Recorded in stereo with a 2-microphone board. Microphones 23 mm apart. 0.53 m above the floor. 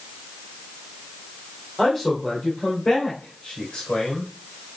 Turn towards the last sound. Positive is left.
turn(degrees=50)  # may be behind; listen again after turning